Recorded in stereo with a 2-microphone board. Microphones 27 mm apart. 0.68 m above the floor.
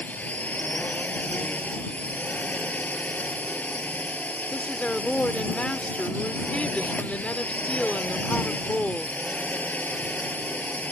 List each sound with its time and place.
0.0 s a drone: 70° left (ahead or behind)
4.5 s a woman speaking: 50° left (ahead or behind)